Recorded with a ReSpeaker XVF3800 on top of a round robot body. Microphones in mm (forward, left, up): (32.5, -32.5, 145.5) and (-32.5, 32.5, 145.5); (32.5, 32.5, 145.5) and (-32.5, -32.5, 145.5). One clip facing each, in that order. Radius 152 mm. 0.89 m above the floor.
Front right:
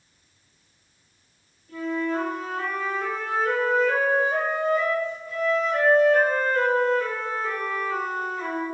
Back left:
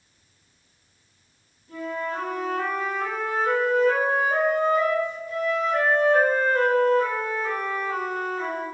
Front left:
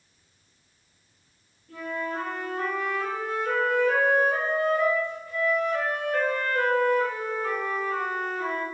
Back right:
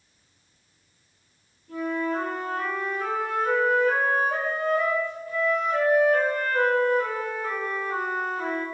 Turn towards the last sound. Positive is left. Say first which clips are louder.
# front right 3 dB, back right 5 dB
turn(degrees=-165)